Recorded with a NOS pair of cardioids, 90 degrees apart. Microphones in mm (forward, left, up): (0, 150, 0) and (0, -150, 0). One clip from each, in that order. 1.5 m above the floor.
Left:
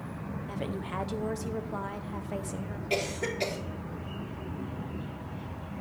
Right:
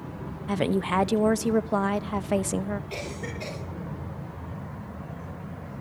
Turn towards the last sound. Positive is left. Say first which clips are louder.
# left 4 dB
turn(degrees=60)